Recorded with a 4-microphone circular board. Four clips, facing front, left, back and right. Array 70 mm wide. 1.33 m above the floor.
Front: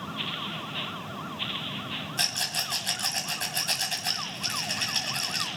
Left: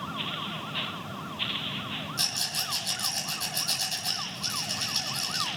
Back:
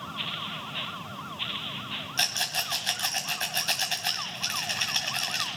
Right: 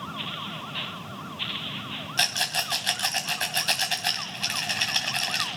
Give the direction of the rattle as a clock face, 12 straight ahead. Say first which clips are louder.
Right 7 dB, back 4 dB; 4 o'clock.